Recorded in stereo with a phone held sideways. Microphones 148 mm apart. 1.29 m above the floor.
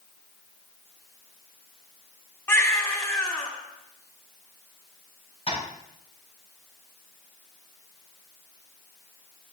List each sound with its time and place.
2.5 s a baby crying: 15° left (ahead or behind), 2 m
5.5 s tapping: 45° left (ahead or behind), 5.5 m